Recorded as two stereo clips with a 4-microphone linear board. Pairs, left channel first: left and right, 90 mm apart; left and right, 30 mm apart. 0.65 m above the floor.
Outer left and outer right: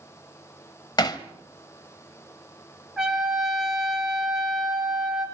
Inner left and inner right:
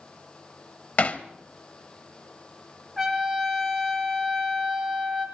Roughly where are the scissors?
No scissors in this recording.